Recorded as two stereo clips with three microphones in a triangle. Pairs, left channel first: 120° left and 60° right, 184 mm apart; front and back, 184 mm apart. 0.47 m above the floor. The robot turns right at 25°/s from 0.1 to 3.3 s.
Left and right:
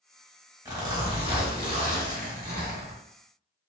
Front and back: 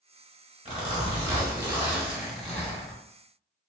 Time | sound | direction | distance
0.7 | a zipper | 130° right | 1.1 m